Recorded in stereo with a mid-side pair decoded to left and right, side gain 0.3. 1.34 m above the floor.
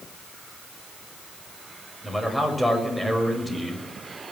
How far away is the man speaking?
About 7 m.